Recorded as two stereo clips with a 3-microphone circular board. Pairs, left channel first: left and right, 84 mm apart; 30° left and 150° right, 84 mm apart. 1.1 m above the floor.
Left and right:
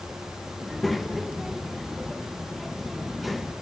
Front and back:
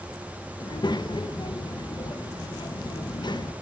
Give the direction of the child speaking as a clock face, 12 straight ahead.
12 o'clock.